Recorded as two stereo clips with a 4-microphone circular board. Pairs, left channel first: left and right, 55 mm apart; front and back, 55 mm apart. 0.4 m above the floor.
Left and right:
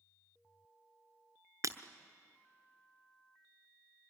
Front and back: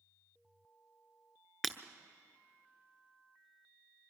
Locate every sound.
1.6 s breaking glass: 90° right, 0.9 m